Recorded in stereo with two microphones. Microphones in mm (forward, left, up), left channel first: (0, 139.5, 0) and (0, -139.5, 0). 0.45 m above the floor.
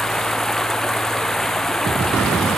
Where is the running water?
Centre (ahead or behind).